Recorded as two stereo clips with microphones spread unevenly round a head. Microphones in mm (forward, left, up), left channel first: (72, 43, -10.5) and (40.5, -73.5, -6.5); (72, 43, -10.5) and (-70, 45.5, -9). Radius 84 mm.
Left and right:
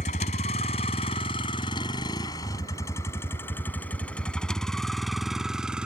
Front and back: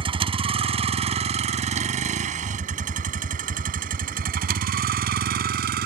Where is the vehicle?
125° left; by 5.9 s 170° left.